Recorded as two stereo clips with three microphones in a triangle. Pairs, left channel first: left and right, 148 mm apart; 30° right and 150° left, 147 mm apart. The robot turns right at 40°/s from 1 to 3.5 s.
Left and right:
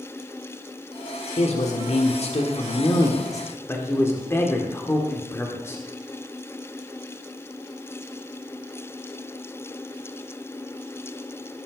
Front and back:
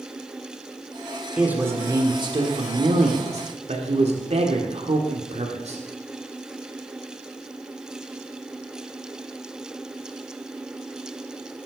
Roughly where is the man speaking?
Left.